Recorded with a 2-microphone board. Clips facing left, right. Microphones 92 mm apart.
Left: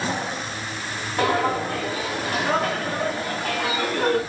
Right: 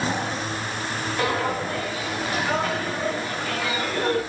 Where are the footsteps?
75° left (ahead or behind), 3.5 m; by 4.2 s 65° left (ahead or behind), 5.5 m.